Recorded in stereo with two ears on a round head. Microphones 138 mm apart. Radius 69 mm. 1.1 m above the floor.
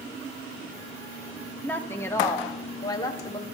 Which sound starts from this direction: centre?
A woman speaking, at 1.6 s.